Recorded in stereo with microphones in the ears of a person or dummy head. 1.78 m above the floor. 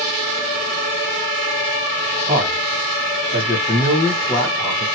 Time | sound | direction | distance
2.3 | a man speaking | 35° right (ahead or behind) | 1.8 m